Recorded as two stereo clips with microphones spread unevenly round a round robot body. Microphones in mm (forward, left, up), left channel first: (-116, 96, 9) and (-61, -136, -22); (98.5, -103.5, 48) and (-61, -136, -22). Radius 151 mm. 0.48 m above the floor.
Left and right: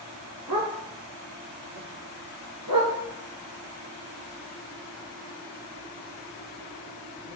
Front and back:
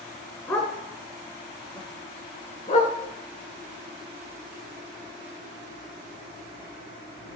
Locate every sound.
0.5 s a dog barking: 60° right, 3 m; by 7.4 s straight ahead, 4.5 m